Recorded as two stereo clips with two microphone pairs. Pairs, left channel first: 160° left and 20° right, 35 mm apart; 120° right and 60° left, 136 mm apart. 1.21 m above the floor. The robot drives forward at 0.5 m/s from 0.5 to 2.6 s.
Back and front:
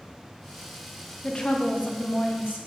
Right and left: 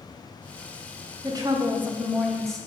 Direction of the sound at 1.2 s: 90° left.